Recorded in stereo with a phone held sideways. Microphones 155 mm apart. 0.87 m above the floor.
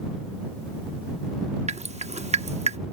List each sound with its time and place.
1.7 s dripping: 45° right (ahead or behind)